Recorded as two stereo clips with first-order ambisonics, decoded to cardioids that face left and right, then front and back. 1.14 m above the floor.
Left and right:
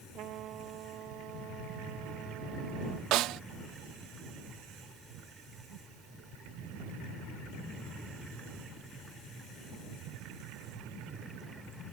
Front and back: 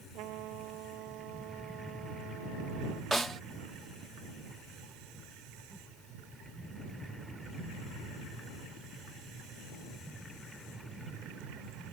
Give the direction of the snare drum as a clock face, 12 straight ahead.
3 o'clock.